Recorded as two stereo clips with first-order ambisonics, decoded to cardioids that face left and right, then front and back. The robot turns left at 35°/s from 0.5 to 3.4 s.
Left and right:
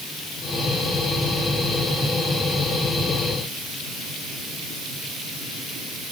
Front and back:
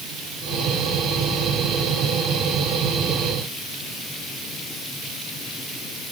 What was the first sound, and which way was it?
Only background noise.